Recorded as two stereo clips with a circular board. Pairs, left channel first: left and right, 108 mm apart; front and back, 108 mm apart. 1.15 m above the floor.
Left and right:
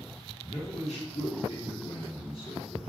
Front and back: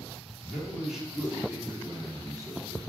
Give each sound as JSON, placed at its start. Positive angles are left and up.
{"t": 0.5, "sound": "a man speaking", "azimuth_deg": 85, "distance_m": 2.5}